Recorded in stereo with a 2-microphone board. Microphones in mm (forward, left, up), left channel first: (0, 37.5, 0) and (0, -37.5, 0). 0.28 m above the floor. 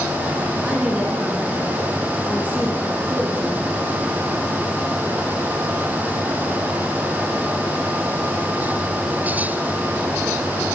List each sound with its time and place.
0.6 s a woman speaking: 20° right (ahead or behind), 3 m